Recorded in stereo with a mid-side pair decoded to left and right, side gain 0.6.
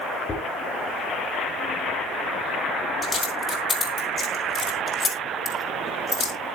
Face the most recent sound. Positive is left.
turn(degrees=25)